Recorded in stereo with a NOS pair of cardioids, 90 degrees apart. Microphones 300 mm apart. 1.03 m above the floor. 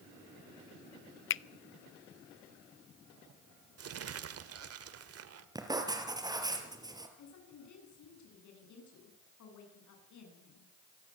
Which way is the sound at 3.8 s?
50° right.